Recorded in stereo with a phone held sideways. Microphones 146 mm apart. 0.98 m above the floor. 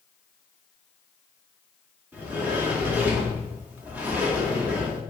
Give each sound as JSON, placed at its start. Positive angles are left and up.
{"t": 2.1, "sound": "a sliding door", "side_deg": -10, "distance_m": 1.0}